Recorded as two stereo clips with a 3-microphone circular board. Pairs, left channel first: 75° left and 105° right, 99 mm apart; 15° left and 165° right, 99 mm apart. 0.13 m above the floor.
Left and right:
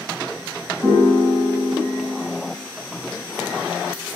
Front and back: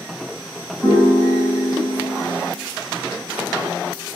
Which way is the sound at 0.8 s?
120° right.